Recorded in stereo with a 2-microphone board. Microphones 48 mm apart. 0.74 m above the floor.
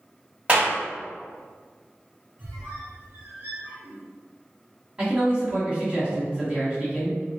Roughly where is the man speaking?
Right.